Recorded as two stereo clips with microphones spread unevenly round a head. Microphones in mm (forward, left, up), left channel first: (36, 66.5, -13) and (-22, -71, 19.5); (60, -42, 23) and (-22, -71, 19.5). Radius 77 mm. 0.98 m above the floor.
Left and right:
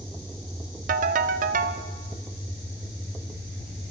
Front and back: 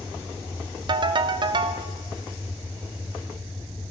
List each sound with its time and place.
0.9 s a ringtone: 130° right, 0.7 m